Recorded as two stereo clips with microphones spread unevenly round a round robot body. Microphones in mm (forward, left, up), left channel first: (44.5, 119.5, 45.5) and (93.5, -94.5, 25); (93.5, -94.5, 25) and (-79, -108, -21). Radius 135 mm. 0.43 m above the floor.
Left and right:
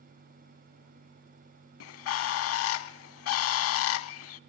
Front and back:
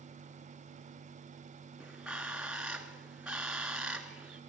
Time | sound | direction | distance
1.8 | a bird | 90° left | 0.6 m